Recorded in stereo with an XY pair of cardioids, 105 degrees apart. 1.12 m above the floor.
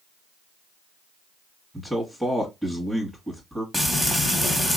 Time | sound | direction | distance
1.7 | a man speaking | 5° left | 1.5 m
3.7 | frying | 10° left | 1.6 m